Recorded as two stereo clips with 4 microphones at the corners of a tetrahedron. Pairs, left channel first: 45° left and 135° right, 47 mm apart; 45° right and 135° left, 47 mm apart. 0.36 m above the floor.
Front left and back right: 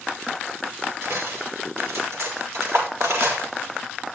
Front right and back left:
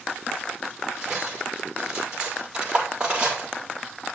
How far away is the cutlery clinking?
About 6.5 m.